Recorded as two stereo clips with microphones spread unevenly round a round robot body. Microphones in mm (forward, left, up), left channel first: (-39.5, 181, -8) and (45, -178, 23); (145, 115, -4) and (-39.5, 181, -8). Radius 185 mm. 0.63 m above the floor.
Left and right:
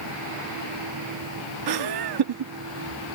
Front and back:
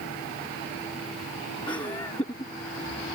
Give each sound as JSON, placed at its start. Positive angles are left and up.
{"t": 1.7, "sound": "laughter", "azimuth_deg": -90}